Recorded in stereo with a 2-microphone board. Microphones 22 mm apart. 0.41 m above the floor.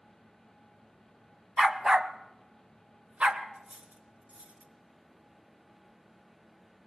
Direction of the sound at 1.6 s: 15° right (ahead or behind).